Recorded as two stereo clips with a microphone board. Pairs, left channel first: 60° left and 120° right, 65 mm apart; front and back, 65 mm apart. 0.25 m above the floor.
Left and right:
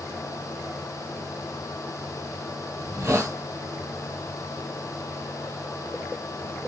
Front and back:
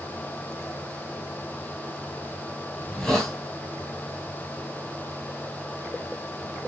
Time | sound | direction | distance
2.8 | a hiss | 85° right | 3 m